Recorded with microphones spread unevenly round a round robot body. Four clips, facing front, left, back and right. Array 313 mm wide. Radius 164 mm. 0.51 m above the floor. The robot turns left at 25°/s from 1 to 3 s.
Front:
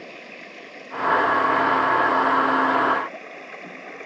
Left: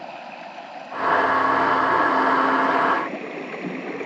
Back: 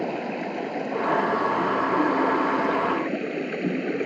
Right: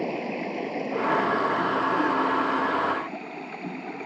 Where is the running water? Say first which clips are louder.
Right 6 dB, back 13 dB; 140° right; by 4.1 s 170° left.